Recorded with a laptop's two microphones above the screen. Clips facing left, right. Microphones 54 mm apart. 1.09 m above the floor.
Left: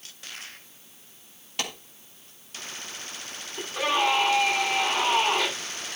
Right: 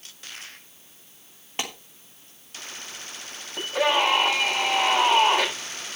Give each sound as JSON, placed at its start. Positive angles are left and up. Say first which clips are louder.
{"t": 1.6, "sound": "a clap", "louder": "right 1 dB", "side_deg": -30, "distance_m": 3.0}
{"t": 3.6, "sound": "a scream", "louder": "right 3 dB", "side_deg": -85, "distance_m": 8.0}